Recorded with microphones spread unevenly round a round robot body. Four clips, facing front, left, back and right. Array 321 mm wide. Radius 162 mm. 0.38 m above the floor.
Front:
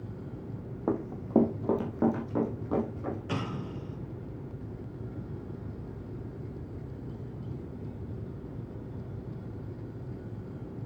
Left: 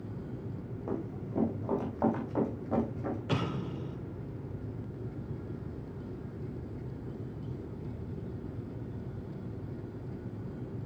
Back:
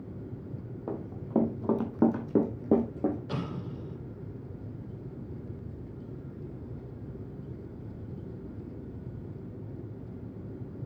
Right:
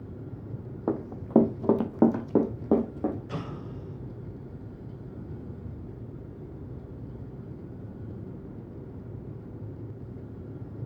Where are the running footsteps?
45° right, 1.5 m; by 3.2 s 140° right, 2 m.